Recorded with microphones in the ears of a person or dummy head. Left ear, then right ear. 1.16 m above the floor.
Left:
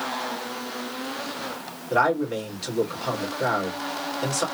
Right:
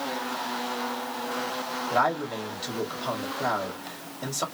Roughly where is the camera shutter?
I don't hear a camera shutter.